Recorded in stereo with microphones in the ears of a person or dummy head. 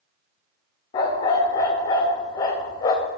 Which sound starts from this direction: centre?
A dog barking, at 0.9 s.